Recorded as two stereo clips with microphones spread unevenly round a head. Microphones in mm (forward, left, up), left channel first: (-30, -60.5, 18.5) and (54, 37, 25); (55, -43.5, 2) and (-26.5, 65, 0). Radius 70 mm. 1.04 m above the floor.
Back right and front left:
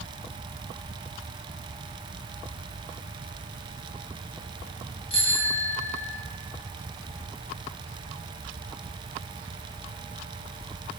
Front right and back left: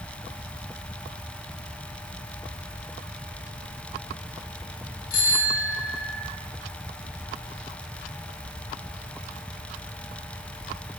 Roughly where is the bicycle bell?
Right.